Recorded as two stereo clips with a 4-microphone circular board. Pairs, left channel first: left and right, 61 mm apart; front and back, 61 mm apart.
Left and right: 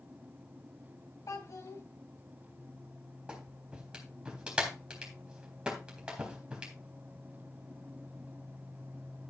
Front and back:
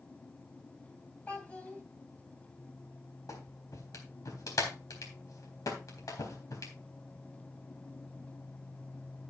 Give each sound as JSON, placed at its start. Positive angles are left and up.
{"t": 1.3, "sound": "a child speaking", "azimuth_deg": 65, "distance_m": 3.0}
{"t": 3.3, "sound": "a clap", "azimuth_deg": -15, "distance_m": 3.5}